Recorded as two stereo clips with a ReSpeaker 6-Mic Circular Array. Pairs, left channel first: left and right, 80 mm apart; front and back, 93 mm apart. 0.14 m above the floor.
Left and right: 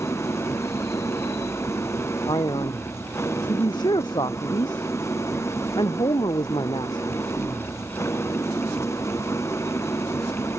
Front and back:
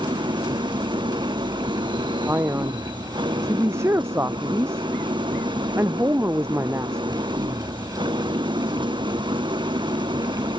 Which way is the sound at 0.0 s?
145° left.